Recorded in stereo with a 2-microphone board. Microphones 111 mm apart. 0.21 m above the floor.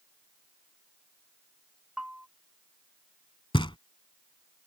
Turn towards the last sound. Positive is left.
turn(degrees=50)  # may be behind; listen again after turning